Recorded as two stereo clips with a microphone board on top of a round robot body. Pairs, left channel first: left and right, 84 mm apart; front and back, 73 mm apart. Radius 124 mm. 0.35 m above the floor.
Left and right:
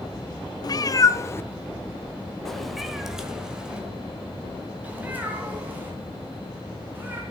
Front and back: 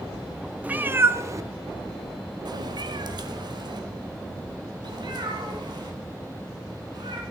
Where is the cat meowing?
115° left, 0.8 m; by 7.2 s 155° right, 3.5 m.